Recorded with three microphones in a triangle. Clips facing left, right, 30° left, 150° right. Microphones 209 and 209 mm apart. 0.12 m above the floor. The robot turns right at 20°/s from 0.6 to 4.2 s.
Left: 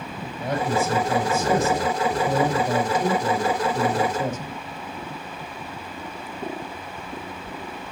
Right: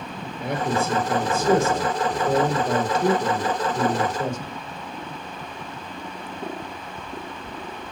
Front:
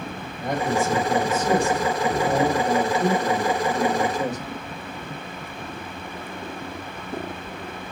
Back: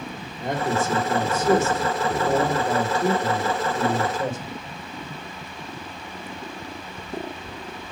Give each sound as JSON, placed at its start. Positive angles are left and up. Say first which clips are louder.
{"t": 0.4, "sound": "a man speaking", "louder": "left 1 dB, front 1 dB", "azimuth_deg": -85, "distance_m": 3.0}